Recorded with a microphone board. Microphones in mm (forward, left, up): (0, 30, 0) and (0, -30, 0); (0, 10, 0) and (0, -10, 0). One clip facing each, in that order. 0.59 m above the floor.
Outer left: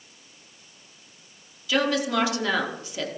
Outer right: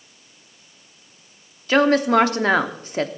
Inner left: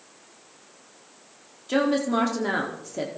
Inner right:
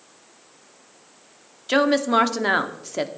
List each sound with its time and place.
1.7 s a woman speaking: 45° right (ahead or behind), 1.0 m